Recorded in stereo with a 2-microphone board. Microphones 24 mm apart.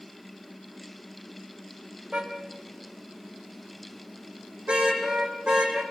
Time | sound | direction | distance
2.1 | a car horn | 50° right (ahead or behind) | 4 m